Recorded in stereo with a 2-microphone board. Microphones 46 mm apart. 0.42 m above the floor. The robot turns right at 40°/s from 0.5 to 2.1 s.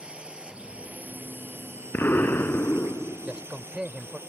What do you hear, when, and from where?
0.0 s a drone: 25° right (ahead or behind); by 4.3 s 60° right (ahead or behind)
1.9 s an explosion: 55° left (ahead or behind); by 3.5 s 50° left (ahead or behind)
3.2 s a man speaking: 20° right (ahead or behind)